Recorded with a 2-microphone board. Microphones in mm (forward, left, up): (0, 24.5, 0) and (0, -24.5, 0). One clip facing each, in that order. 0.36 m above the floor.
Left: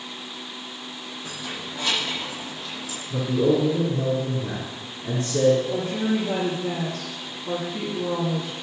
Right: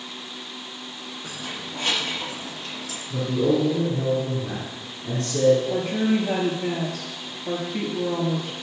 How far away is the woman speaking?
About 6 m.